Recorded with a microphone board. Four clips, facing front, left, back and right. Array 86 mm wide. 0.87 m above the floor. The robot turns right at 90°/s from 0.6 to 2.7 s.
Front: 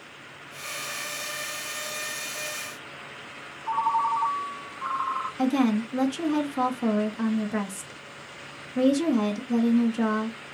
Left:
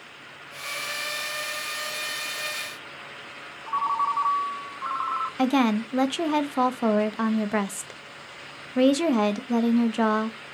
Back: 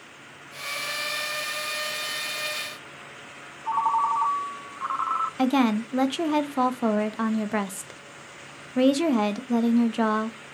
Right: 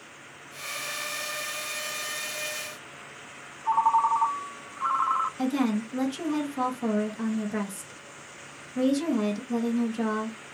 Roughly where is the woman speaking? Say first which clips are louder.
Left 4 dB, back 1 dB; behind left.